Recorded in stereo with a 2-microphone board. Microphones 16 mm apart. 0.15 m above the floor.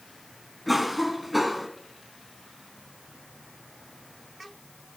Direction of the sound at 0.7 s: 10° right (ahead or behind).